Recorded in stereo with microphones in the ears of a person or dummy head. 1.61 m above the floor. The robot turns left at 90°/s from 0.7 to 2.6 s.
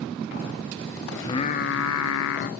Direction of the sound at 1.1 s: 170° left.